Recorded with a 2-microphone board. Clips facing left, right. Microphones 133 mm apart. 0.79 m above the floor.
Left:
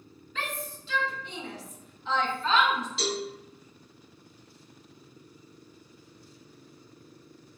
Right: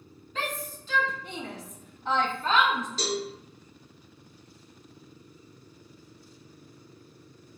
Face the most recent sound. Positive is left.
turn(degrees=-40)  # may be behind; listen again after turning